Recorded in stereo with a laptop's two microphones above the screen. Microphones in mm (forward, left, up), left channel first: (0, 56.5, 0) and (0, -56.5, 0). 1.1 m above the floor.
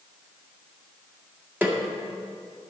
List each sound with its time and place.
1.6 s a snare drum: 15° right (ahead or behind), 1.8 m